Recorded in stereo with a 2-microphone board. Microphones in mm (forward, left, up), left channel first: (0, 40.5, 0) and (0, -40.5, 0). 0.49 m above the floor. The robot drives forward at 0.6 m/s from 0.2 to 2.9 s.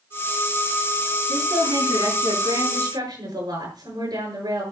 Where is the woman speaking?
60° right (ahead or behind), 7 m; by 4.6 s 50° right (ahead or behind), 7.5 m.